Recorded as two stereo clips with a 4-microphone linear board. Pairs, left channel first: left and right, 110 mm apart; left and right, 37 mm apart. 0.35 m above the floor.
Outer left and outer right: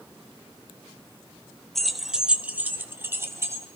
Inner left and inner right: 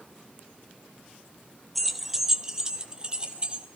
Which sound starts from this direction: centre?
Keys jangling, at 1.8 s.